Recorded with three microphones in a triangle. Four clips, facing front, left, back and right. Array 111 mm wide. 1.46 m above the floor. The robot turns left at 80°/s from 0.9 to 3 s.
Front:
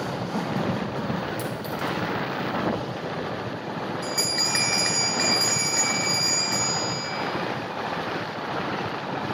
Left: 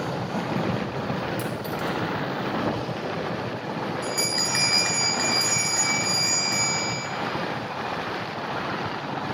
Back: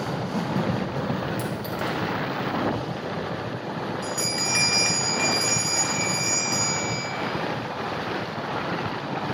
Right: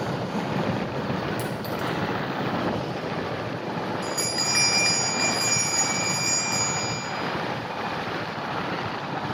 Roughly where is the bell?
Ahead left.